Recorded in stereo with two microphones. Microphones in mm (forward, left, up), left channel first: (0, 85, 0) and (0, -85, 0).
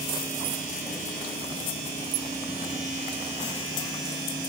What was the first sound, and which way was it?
Only background noise.